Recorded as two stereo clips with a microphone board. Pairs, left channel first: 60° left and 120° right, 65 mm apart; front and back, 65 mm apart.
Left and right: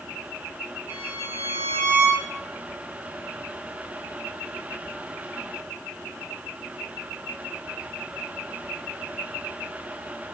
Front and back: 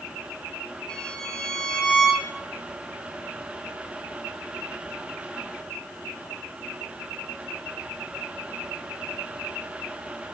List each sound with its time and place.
0.9 s a violin: 75° right, 3.5 m